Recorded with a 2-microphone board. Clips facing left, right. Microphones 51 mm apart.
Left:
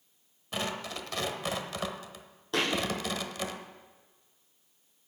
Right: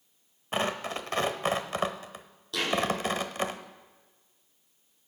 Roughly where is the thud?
Left.